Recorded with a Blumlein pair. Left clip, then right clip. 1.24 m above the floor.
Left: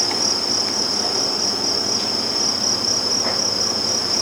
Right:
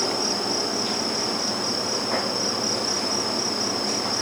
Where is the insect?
70° left.